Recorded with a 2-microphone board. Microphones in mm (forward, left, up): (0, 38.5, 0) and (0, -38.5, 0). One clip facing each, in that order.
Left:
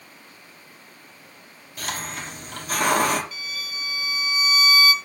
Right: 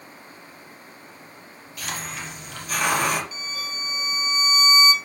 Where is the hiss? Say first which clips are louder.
Left 1 dB; 45° left (ahead or behind), 4 m.